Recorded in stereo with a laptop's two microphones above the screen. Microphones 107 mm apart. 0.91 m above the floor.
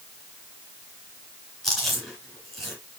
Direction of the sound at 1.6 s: Centre (ahead or behind).